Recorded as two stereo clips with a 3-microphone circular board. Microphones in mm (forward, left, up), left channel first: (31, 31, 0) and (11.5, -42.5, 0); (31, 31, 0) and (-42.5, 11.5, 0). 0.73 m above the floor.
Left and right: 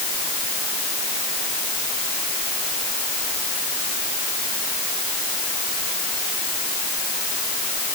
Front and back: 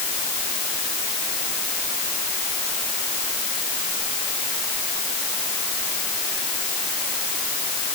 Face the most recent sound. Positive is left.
No sound to turn to.